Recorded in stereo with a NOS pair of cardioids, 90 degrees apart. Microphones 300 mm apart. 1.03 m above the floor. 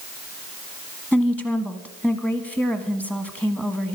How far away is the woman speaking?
About 1.2 m.